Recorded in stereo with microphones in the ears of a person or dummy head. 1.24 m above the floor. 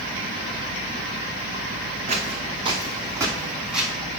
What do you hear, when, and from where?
2.1 s footsteps: 40° right (ahead or behind), 3 m; by 3.9 s centre (ahead or behind), 2.5 m